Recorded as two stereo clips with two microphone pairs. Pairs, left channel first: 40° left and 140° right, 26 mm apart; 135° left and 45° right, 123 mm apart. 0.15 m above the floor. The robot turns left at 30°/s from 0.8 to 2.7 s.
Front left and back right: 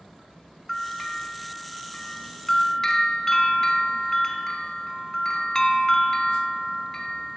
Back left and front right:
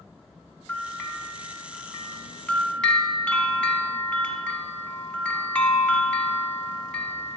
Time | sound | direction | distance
0.7 | a bell | 135° left | 1.0 m